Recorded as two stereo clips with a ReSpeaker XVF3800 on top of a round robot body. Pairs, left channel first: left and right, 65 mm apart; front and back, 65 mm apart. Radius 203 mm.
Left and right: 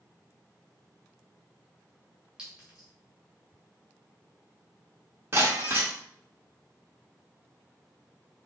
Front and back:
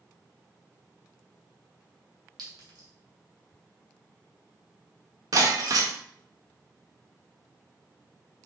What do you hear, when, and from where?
2.4 s a clink: 165° right, 2.5 m
5.3 s breaking glass: 150° right, 0.7 m